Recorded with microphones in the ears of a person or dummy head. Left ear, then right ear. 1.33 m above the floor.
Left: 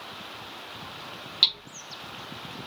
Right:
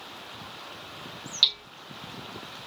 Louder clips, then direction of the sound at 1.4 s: Even; 10° left (ahead or behind).